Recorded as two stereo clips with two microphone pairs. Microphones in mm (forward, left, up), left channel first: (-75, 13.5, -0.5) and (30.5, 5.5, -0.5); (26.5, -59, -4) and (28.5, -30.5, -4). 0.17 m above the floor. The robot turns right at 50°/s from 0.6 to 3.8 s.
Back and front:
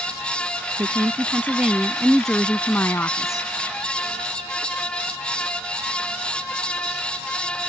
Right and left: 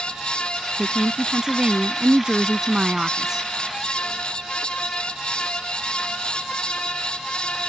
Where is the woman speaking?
25° left; by 3.5 s 160° left.